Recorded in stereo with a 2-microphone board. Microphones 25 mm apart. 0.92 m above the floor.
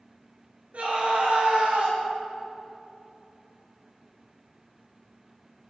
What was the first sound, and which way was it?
A scream, 65° right (ahead or behind).